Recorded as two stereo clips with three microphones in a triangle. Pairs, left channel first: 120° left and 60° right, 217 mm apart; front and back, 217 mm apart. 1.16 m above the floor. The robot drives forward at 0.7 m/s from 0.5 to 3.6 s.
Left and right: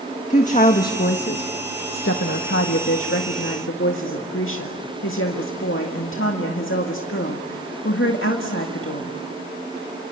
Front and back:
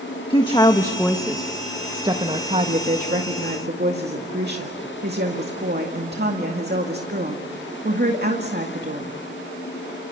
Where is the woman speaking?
65° left, 1.5 m; by 9.2 s 140° left, 2 m.